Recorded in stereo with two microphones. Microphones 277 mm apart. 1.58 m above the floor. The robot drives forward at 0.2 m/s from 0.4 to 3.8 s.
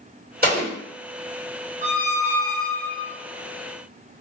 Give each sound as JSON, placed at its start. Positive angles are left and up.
{"t": 0.4, "sound": "an explosion", "side_deg": -35, "distance_m": 1.9}
{"t": 1.8, "sound": "a squeak", "side_deg": -30, "distance_m": 1.5}